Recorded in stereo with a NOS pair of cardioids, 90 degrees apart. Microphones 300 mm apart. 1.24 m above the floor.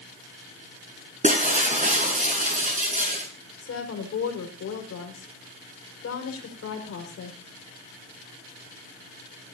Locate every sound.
1.2 s breaking glass: 25° right, 6.5 m
3.6 s a woman speaking: 55° left, 5.5 m